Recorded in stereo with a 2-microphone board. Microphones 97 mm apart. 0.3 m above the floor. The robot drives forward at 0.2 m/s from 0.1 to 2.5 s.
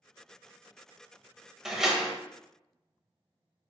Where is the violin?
No violin in this recording.